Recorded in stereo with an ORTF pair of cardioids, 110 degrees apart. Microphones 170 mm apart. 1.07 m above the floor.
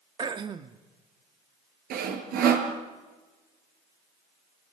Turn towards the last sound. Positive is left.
turn(degrees=-70)